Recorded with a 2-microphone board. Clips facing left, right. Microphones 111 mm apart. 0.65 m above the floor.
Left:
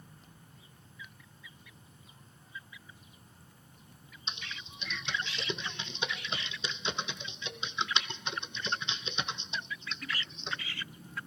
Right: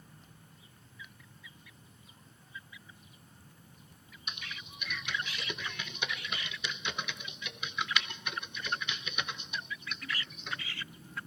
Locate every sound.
4.3 s typing on a keyboard: 30° left (ahead or behind), 0.8 m